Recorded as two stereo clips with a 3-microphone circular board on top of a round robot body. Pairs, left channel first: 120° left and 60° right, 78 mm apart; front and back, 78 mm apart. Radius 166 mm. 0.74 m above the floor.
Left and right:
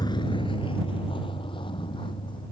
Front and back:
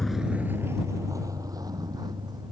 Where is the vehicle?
85° left; by 2.5 s 140° left.